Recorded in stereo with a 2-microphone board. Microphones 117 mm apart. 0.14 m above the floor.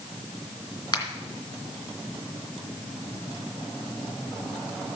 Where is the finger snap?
35° left (ahead or behind), 2.0 m.